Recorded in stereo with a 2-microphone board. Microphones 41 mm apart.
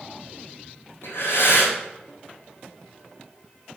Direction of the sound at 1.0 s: 75° left (ahead or behind).